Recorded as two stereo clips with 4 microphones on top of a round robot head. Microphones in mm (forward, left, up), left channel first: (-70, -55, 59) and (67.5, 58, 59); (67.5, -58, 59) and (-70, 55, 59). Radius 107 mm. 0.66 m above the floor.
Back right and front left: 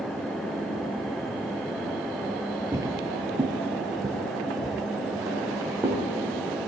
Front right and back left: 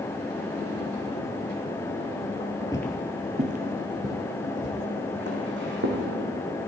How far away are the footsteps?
About 0.6 m.